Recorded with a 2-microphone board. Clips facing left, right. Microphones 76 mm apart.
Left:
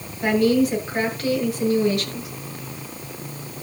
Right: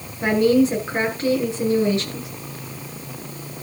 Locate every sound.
0.2 s a woman speaking: 30° right (ahead or behind), 7.5 m